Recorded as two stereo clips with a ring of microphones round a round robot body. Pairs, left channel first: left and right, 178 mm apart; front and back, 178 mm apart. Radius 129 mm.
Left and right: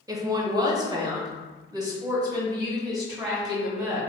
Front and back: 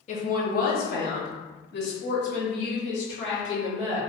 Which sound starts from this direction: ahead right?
A woman speaking, at 0.1 s.